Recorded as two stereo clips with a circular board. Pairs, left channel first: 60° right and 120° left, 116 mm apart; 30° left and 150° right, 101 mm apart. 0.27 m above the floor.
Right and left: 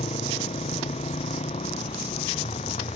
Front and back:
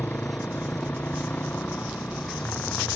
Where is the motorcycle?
45° right.